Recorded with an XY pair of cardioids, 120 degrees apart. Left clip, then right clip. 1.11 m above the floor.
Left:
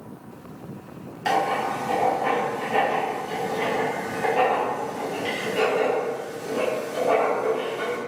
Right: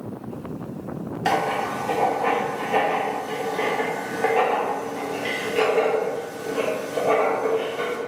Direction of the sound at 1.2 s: 30° right.